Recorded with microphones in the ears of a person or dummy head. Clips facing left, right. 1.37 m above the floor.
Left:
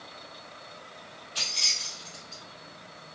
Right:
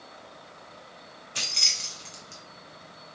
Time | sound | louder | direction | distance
1.4 | keys jangling | right 2 dB | 30° right (ahead or behind) | 0.6 m